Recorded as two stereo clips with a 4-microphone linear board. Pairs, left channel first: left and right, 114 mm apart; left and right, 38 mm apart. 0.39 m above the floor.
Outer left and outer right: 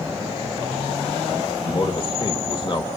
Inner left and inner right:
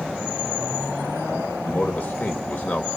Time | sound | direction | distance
1.6 | a man speaking | 45° left (ahead or behind) | 1.9 m